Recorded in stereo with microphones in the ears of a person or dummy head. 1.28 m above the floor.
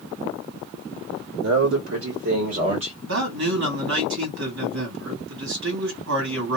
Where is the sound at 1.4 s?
80° right, 1.2 m; by 2.9 s 35° right (ahead or behind), 1.1 m.